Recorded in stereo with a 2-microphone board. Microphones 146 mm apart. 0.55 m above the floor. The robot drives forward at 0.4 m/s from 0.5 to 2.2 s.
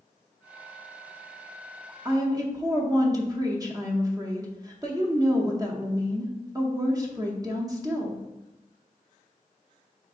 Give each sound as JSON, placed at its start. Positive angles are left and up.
{"t": 2.0, "sound": "a woman speaking", "side_deg": -25, "distance_m": 0.7}